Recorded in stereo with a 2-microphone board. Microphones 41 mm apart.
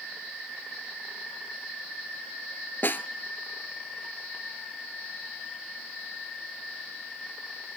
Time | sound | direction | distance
2.8 | a snare drum | 55° left (ahead or behind) | 0.6 m